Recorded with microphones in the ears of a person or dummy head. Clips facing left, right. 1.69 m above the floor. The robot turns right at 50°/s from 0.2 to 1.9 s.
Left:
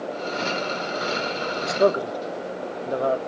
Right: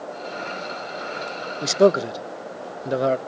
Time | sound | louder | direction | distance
1.6 | a man speaking | right 4 dB | 35° right (ahead or behind) | 0.5 m